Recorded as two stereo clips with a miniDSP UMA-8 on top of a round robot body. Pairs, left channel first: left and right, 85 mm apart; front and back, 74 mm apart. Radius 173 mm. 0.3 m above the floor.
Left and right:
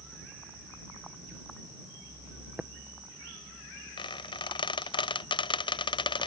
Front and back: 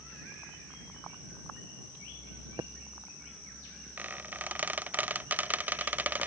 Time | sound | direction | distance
2.6 | tapping | 165° right | ?
4.0 | a squeak | 115° left | ?